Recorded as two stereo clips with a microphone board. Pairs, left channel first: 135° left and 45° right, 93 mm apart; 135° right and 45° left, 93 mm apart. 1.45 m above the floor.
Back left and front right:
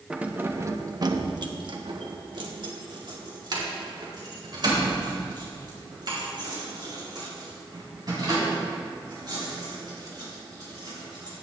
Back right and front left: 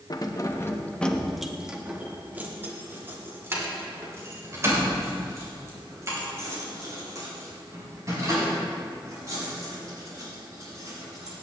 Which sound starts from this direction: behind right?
Keys jangling, at 0.1 s.